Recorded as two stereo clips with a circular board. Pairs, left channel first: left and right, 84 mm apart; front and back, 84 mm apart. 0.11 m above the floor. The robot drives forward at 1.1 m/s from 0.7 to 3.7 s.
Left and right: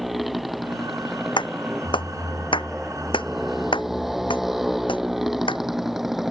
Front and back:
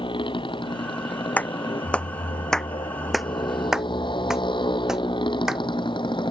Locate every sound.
0.0 s a motorcycle: straight ahead; by 6.3 s 5° right
1.4 s a clap: 70° left; by 5.6 s 95° left